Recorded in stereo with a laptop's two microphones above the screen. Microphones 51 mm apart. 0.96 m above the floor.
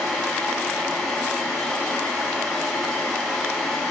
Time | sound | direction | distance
0.0 | a fan | 5° left (ahead or behind) | 2 m